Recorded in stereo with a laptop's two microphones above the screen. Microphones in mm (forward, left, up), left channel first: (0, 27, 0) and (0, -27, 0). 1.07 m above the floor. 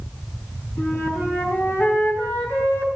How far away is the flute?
About 4.5 m.